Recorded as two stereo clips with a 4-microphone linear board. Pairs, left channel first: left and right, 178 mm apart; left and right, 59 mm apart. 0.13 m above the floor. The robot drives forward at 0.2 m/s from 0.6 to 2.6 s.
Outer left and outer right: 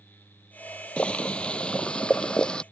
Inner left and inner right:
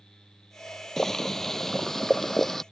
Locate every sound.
1.0 s boiling: 5° left (ahead or behind)